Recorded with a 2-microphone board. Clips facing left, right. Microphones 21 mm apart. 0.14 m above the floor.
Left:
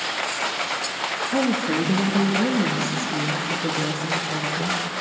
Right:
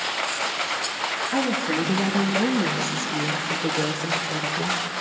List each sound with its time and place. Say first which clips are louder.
1.3 s a woman speaking: left 3 dB; 5° left (ahead or behind), 1.9 m; by 4.8 s 30° right (ahead or behind), 3.5 m